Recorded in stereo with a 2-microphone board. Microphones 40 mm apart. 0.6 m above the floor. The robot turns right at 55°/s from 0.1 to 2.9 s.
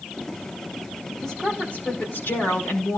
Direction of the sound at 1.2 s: 15° left.